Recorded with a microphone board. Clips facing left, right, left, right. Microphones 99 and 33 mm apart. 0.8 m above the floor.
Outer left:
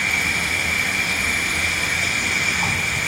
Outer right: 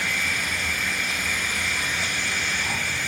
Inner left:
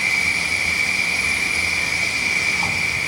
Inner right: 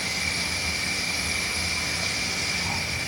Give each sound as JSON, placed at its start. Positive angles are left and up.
{"t": 0.0, "sound": "an insect", "side_deg": 75, "distance_m": 3.0}